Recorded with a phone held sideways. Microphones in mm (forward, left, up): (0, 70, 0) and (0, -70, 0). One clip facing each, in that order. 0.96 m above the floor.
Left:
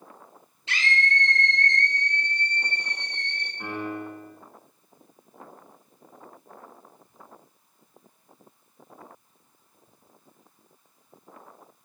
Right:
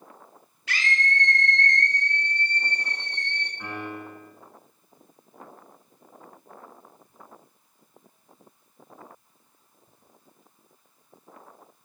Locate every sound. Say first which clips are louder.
0.7 s a scream: even; 25° left (ahead or behind), 3 m; by 3.5 s 15° left (ahead or behind), 4.5 m
3.6 s a piano: left 4 dB; 15° left (ahead or behind), 5 m